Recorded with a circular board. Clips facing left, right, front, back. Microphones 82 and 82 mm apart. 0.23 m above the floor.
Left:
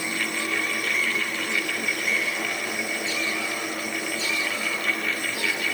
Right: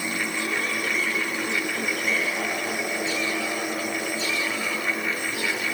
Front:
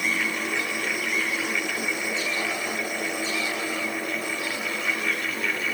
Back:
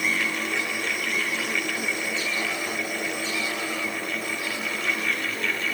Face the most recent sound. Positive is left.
No sound to turn to.